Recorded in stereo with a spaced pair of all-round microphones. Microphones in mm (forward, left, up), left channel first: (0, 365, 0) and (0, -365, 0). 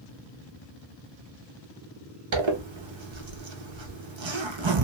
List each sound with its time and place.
2.3 s a zipper: 45° right (ahead or behind), 0.7 m